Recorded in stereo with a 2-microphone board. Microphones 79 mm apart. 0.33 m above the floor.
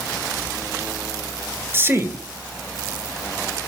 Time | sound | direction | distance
1.7 | a man speaking | 30° right (ahead or behind) | 1.7 m